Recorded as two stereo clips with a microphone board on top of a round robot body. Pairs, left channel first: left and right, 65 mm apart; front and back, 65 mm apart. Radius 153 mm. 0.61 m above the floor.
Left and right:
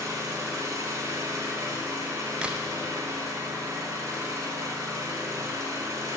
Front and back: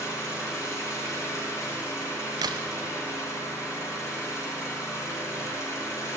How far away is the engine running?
About 3 m.